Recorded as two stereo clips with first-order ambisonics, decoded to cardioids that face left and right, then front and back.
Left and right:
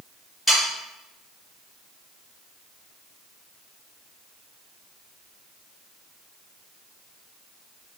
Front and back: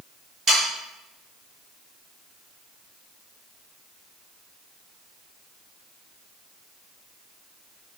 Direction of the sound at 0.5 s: 170° left.